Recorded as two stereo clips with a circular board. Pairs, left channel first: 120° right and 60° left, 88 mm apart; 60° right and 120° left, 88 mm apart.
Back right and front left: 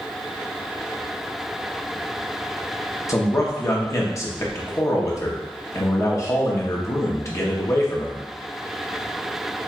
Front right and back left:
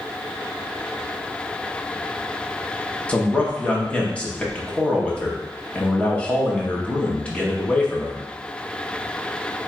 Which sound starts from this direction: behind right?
A man speaking, at 3.1 s.